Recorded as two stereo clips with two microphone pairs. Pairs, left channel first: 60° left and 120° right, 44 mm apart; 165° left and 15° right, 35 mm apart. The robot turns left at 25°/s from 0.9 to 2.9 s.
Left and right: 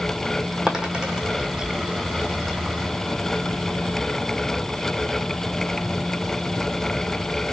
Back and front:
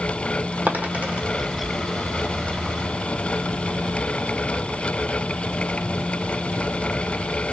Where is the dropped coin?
45° right, 1.7 m; by 1.2 s 55° right, 1.7 m.